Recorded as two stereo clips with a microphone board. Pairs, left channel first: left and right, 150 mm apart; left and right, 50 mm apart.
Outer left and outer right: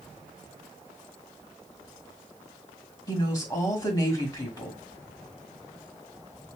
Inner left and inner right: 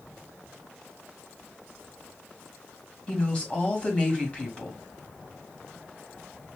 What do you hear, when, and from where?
3.1 s a woman speaking: 25° left (ahead or behind), 1.3 m